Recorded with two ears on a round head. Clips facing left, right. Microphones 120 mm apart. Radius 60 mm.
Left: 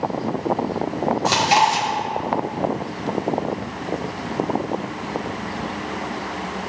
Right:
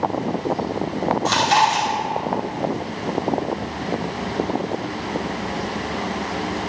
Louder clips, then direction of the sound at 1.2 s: Left 1 dB; 15° left (ahead or behind).